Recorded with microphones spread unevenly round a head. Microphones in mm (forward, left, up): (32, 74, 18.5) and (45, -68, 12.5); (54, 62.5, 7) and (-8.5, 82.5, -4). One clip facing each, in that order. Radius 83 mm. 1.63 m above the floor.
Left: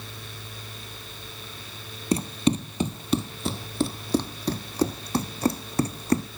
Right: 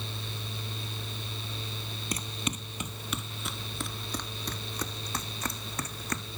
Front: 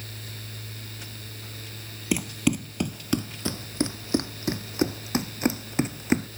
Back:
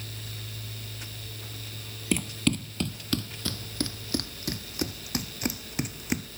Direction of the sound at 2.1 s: 50° left.